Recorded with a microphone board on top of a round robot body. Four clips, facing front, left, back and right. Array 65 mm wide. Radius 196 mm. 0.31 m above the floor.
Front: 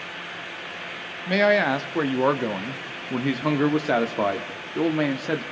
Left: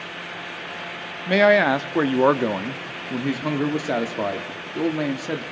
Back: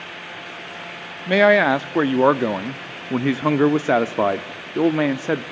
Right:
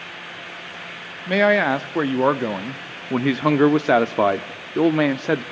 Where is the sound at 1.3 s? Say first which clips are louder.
Left 1 dB, back 5 dB; 175° left, 0.9 m.